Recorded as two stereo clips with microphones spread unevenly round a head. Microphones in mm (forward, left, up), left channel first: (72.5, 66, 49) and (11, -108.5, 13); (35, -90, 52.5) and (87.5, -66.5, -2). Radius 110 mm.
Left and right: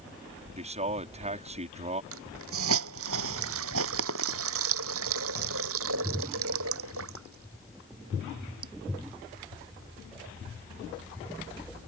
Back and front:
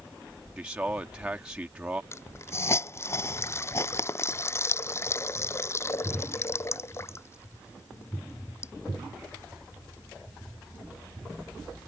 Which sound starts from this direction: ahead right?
A man speaking, at 0.6 s.